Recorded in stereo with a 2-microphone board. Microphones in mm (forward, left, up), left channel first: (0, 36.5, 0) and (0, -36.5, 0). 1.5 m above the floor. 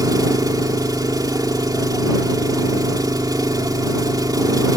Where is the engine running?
65° right (ahead or behind).